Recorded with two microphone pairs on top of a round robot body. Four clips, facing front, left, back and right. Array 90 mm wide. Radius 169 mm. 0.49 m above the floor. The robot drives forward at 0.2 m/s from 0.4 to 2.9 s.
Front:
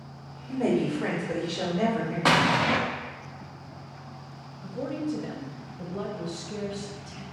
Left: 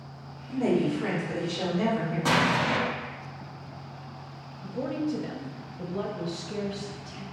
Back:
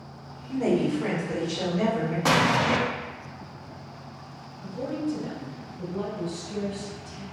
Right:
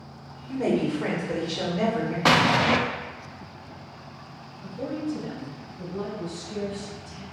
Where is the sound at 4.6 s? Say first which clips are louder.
Left 1 dB, back 1 dB; 60° left, 0.8 m.